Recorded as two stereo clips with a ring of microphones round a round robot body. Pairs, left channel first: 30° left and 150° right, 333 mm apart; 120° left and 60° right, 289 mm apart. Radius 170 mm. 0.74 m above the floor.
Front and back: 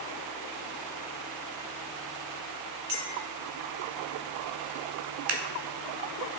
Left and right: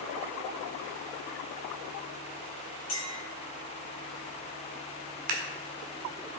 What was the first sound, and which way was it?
A clink, 165° left.